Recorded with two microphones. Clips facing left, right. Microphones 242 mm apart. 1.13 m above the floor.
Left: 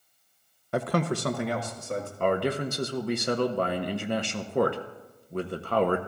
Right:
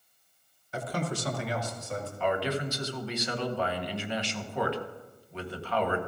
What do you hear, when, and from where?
0.7 s a man speaking: 70° left (ahead or behind), 0.5 m; by 2.1 s 55° left (ahead or behind), 1.8 m
2.2 s a man speaking: 55° left (ahead or behind), 0.8 m